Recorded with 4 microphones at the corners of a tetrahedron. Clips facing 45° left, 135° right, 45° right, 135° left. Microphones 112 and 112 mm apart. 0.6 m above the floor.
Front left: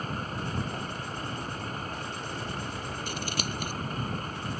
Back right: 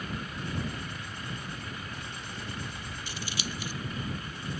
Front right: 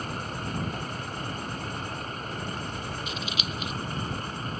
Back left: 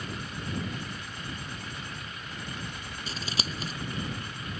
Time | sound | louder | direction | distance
0.0 | a vehicle | front left 3 dB, front right 4 dB | straight ahead | ?
3.1 | scissors | front left 3 dB, front right 2 dB | 80° left | ?